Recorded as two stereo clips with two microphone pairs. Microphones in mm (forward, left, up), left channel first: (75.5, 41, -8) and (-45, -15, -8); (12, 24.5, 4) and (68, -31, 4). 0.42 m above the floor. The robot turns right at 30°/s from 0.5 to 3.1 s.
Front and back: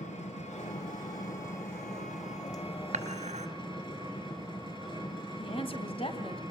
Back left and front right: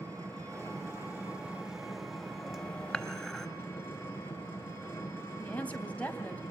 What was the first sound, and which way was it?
An engine running, straight ahead.